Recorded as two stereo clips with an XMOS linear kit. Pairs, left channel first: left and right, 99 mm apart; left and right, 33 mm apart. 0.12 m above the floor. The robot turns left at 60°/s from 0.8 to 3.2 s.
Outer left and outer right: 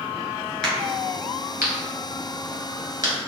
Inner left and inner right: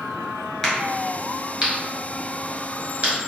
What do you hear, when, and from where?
0.6 s a crack: 5° left (ahead or behind), 1.4 m; by 3.1 s 35° right (ahead or behind), 1.4 m